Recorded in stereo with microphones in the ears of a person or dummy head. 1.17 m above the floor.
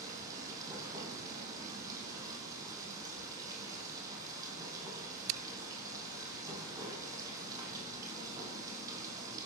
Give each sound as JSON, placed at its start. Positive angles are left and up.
{"t": 0.0, "sound": "running water", "side_deg": -20, "distance_m": 5.0}